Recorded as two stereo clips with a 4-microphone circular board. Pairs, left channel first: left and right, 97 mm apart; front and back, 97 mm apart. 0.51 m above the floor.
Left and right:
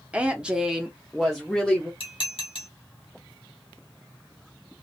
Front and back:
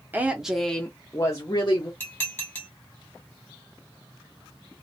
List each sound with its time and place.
0.1 s a woman speaking: 145° right, 0.7 m; by 1.9 s 5° left, 0.9 m
2.0 s dishes clattering: 70° left, 1.4 m